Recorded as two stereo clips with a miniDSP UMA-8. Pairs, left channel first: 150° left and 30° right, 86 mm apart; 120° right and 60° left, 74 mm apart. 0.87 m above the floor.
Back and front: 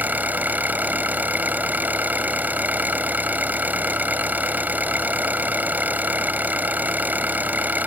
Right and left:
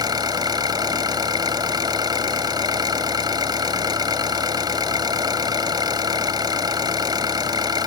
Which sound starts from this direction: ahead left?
An engine running, at 0.0 s.